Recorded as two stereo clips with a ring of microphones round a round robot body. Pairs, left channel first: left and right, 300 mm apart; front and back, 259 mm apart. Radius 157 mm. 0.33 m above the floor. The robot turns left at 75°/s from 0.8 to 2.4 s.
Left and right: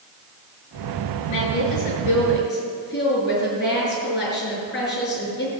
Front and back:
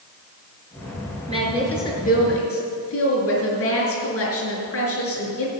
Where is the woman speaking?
115° left, 5 m; by 5.5 s 35° left, 5 m.